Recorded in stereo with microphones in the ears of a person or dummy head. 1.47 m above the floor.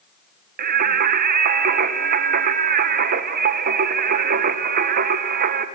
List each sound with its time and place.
0.6 s singing: 50° right (ahead or behind), 1.3 m